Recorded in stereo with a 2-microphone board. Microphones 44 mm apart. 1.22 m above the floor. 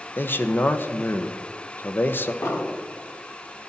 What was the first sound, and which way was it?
A man speaking, 50° left (ahead or behind).